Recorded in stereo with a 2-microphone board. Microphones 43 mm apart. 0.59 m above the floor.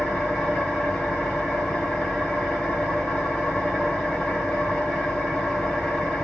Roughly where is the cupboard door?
I don't hear a cupboard door.